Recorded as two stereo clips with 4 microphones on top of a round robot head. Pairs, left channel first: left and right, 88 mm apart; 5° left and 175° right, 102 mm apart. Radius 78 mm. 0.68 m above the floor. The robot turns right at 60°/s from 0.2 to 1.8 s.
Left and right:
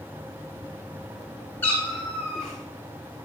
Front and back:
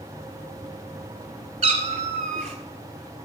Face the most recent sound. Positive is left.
turn(degrees=175)